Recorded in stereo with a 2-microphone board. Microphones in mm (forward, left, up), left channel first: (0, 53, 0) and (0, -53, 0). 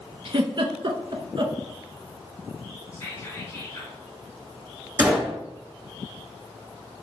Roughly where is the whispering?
Left.